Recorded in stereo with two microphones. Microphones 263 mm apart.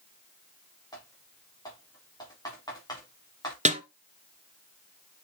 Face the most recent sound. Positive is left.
turn(degrees=-25)  # may be behind; listen again after turning